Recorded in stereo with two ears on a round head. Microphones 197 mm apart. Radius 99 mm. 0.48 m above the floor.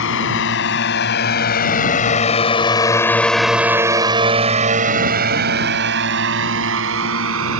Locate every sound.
0.0 s a drone: 60° left (ahead or behind); by 7.6 s 65° right (ahead or behind)